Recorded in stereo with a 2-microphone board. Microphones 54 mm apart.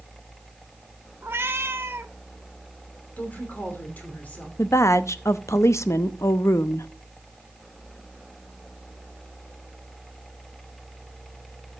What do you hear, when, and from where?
1.2 s a cat meowing: 45° right (ahead or behind), 0.8 m
3.2 s a woman speaking: 30° left (ahead or behind), 3 m
4.6 s a woman speaking: 60° left (ahead or behind), 0.7 m